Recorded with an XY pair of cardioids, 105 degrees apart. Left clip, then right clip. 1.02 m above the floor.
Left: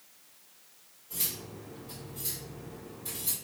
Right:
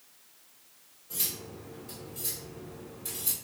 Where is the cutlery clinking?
45° right, 1.4 m.